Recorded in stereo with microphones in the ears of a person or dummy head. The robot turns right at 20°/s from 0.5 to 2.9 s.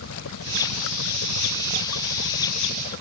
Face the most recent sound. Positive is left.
turn(degrees=135)